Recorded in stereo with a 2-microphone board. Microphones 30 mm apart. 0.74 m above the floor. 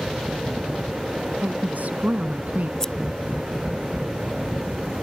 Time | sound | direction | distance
1.4 | a woman speaking | 70° right (ahead or behind) | ?
2.8 | scissors | 20° left (ahead or behind) | ?